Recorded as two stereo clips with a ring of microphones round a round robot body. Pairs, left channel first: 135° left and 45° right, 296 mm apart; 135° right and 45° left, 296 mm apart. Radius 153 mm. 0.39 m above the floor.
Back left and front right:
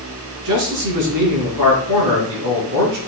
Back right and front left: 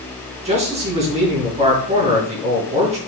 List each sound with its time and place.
0.5 s a man speaking: 25° right, 4.5 m